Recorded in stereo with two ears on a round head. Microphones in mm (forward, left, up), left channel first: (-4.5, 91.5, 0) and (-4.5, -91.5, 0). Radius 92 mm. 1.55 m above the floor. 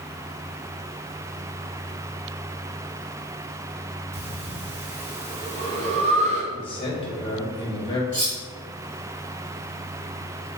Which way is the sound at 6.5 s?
25° left (ahead or behind).